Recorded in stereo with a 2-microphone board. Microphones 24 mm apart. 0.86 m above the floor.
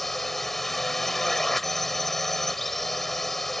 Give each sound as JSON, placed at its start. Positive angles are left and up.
{"t": 0.0, "sound": "a drone", "side_deg": 10}